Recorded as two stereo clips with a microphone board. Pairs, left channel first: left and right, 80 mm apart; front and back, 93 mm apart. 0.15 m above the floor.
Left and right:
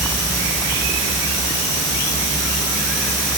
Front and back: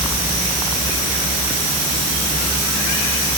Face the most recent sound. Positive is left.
No sound to turn to.